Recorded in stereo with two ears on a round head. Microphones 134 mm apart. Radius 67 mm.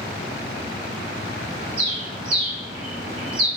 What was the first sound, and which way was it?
A bird, 35° right (ahead or behind).